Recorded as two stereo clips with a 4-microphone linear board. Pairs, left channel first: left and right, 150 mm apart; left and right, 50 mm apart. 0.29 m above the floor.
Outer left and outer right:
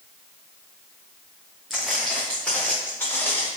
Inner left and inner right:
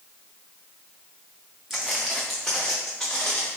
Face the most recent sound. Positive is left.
turn(degrees=15)  # may be behind; listen again after turning